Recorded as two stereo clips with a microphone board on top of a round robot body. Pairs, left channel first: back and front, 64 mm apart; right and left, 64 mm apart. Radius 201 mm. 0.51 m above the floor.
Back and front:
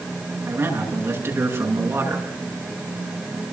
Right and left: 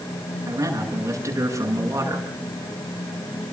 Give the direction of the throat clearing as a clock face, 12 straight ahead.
I don't hear throat clearing.